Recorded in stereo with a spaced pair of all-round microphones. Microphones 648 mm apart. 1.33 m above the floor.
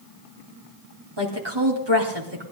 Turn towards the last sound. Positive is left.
turn(degrees=-40)  # may be behind; listen again after turning